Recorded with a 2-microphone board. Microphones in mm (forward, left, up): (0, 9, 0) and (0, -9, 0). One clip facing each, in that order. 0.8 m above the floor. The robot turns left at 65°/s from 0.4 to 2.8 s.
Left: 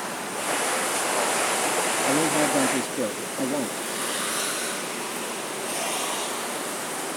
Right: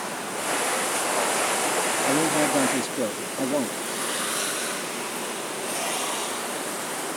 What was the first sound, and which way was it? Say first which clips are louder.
A man speaking: even; 5° left.